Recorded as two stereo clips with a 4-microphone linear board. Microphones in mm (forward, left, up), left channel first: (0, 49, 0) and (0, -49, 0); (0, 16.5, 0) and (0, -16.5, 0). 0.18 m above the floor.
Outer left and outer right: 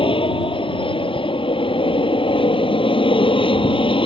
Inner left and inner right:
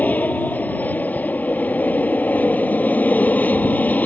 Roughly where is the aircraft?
Left.